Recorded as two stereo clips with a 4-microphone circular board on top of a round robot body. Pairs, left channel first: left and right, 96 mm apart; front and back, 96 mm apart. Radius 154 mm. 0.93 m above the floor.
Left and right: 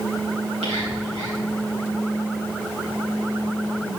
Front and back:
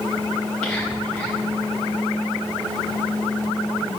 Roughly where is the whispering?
Right.